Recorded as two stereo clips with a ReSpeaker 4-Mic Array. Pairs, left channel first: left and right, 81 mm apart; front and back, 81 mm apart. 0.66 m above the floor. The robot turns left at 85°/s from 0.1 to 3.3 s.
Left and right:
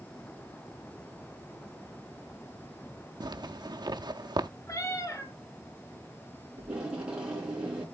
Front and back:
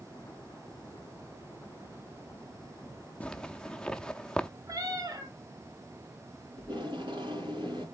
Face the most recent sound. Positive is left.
turn(degrees=-170)